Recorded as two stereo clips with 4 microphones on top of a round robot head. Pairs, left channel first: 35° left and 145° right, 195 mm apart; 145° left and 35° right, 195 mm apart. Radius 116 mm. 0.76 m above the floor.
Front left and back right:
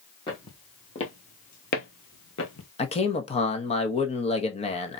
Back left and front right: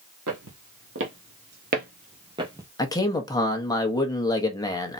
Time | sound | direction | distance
0.3 | footsteps | 30° right | 1.6 m
2.8 | a man speaking | 80° left | 1.3 m